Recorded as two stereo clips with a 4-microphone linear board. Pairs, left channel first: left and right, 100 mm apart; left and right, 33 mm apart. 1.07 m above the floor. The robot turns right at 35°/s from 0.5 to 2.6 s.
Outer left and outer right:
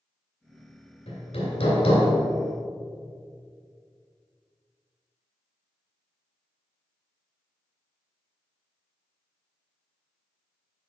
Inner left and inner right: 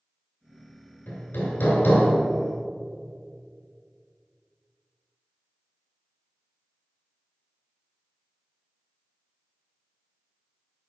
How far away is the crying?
I don't hear crying.